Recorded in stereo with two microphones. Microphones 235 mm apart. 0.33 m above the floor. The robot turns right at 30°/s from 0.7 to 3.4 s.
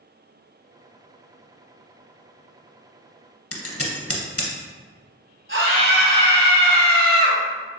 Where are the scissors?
75° left (ahead or behind), 0.7 m.